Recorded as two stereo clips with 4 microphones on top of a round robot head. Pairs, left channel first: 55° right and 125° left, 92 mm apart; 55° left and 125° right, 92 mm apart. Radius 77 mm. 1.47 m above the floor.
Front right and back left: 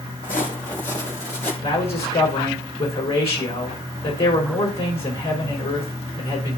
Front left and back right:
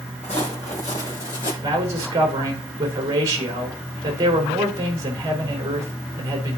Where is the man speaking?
80° right, 4.5 m.